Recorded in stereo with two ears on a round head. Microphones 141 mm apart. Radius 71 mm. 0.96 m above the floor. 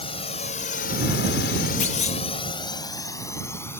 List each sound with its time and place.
0.0 s a drone: 35° left (ahead or behind); by 3.8 s 15° left (ahead or behind)
1.8 s a clunk: 40° left (ahead or behind)